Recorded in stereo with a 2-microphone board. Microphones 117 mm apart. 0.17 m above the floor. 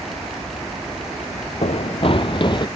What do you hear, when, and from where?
1.6 s running footsteps: 65° left (ahead or behind); by 2.7 s 40° left (ahead or behind)